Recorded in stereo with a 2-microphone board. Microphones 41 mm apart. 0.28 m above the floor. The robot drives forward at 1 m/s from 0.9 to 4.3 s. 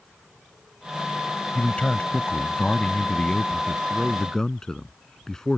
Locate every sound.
1.6 s a man speaking: 30° left (ahead or behind); by 5.6 s 15° left (ahead or behind)